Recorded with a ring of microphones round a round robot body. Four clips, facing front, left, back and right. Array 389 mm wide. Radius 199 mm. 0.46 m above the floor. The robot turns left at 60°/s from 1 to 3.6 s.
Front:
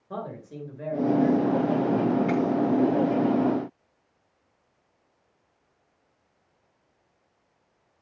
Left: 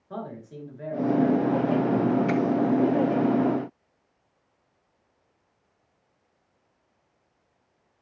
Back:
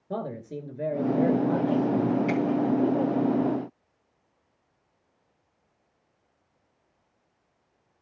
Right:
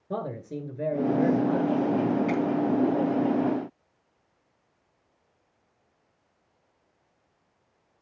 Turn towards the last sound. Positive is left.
turn(degrees=75)